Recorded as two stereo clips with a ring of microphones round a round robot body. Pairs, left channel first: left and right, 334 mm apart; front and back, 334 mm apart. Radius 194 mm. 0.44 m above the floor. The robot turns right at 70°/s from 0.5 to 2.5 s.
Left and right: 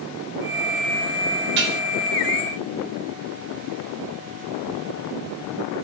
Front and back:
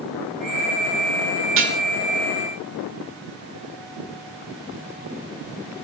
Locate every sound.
1.6 s dishes clattering: 140° right, 0.6 m; by 1.8 s 120° right, 0.6 m